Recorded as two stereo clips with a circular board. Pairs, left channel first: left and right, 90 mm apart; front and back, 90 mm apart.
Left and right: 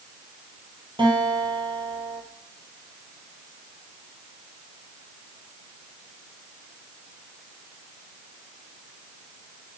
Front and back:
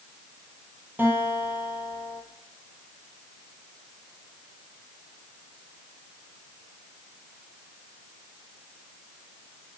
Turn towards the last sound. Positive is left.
turn(degrees=-115)